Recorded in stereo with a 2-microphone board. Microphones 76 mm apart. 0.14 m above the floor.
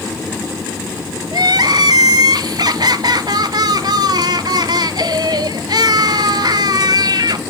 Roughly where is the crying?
Right.